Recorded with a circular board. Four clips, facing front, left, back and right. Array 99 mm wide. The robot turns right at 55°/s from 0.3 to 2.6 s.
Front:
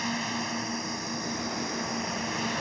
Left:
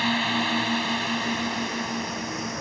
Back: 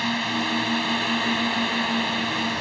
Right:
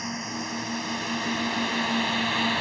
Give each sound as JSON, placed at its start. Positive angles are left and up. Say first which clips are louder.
{"t": 0.0, "sound": "a drone", "louder": "left 8 dB, back 6 dB", "azimuth_deg": 120}